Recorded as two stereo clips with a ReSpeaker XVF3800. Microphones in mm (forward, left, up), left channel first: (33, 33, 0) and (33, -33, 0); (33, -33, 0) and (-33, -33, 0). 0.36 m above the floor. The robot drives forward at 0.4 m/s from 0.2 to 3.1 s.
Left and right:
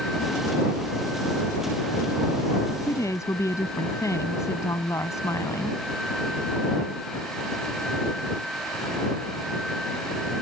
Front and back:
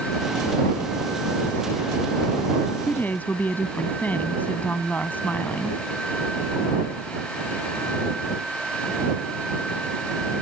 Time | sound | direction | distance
2.8 | a woman speaking | 60° left | ?